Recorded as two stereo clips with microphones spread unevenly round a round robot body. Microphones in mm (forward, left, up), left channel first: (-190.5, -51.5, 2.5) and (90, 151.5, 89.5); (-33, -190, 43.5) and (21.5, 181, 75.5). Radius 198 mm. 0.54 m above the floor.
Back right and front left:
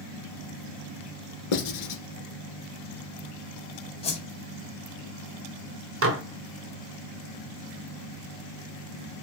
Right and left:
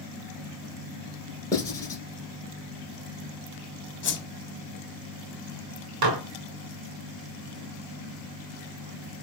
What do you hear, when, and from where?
1.5 s writing: straight behind, 1.4 m
4.0 s a whoosh: 110° right, 1.2 m
6.0 s dishes clattering: 95° left, 1.1 m